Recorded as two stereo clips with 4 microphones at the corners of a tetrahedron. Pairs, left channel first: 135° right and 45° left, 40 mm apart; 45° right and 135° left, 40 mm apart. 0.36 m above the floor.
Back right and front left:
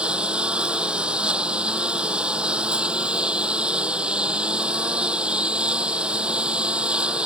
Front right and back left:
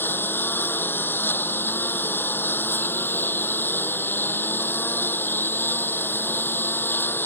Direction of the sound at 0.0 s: 20° right.